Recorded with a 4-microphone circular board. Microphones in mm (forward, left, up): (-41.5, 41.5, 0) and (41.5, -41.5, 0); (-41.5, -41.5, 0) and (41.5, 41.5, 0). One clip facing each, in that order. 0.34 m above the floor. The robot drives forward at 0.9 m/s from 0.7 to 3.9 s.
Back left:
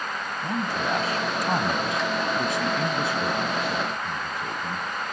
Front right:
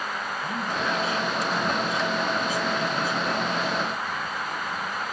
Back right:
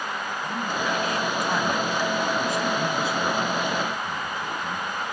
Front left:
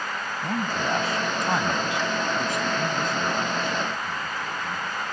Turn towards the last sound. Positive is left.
turn(degrees=150)